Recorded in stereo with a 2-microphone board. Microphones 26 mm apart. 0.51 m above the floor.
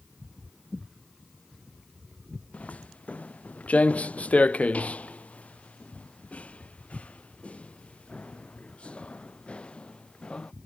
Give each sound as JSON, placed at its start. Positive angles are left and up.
{"t": 2.5, "sound": "footsteps", "side_deg": 75}